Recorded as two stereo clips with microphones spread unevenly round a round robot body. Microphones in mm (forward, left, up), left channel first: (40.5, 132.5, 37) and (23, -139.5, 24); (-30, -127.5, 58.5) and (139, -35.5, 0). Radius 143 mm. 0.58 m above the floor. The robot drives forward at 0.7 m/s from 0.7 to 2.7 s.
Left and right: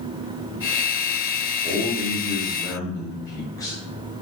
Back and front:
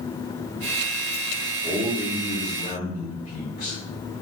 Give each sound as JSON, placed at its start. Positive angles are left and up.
{"t": 1.6, "sound": "a man speaking", "azimuth_deg": 30, "distance_m": 0.8}